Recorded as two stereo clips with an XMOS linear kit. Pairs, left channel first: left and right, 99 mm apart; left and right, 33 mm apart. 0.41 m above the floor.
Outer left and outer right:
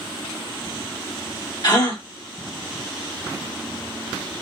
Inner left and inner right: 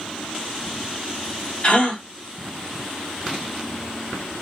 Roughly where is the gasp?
Left.